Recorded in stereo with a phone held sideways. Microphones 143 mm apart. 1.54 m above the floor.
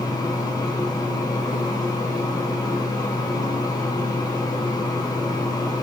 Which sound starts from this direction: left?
A fan, at 0.0 s.